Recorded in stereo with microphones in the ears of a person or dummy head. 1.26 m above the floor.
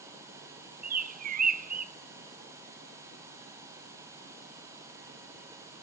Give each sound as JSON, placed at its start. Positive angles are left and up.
{"t": 0.8, "sound": "a bird", "side_deg": -45, "distance_m": 0.6}